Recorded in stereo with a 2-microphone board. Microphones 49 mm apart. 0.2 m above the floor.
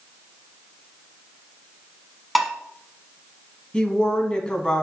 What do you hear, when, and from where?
2.4 s dishes clattering: centre (ahead or behind), 1.1 m
3.7 s a woman speaking: 20° left (ahead or behind), 1.4 m